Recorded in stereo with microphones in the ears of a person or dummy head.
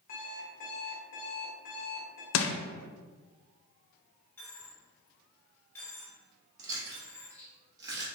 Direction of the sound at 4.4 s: 10° left (ahead or behind).